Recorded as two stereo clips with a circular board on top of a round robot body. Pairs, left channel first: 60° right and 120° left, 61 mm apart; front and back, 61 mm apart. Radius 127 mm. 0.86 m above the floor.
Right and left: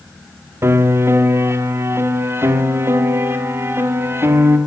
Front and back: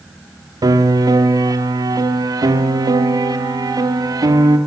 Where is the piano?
170° left, 1.6 m.